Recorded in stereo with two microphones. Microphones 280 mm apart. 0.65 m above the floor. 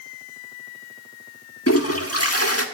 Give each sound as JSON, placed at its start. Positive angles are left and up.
{"t": 1.7, "sound": "a toilet flushing", "side_deg": 55, "distance_m": 1.4}